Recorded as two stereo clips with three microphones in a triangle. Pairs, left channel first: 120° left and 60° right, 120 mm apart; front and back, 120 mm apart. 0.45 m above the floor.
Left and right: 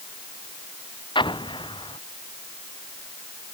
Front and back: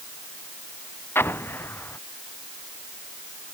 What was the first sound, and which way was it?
An explosion, 70° left.